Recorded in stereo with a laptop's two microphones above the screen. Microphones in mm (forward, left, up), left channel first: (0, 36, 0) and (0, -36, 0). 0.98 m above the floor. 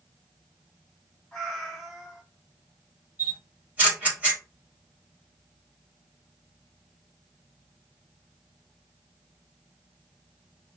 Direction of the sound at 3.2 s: 25° right (ahead or behind).